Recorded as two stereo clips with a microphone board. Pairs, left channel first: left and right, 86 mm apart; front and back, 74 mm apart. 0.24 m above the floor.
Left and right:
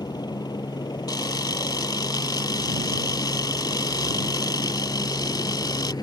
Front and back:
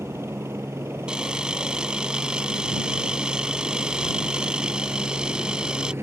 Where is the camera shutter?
105° left.